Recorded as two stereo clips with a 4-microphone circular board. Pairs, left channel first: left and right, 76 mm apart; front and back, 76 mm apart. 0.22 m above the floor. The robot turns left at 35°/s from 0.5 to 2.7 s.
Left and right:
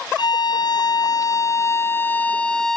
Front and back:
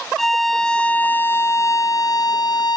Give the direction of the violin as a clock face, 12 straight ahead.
9 o'clock.